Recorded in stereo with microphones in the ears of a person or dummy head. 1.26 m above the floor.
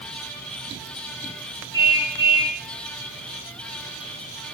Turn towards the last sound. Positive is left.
turn(degrees=-25)  # may be behind; listen again after turning